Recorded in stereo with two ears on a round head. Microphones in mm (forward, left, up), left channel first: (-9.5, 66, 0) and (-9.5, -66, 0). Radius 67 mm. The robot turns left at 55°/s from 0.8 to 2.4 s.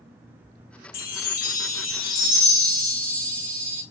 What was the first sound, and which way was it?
A chime, 95° left.